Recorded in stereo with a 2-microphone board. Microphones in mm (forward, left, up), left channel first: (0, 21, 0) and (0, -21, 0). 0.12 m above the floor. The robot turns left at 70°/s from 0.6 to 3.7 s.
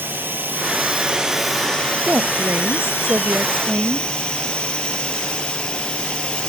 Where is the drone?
120° right; by 6.5 s 25° left.